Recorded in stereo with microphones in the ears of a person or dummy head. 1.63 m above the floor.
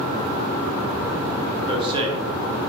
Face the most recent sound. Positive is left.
turn(degrees=-30)  # may be behind; listen again after turning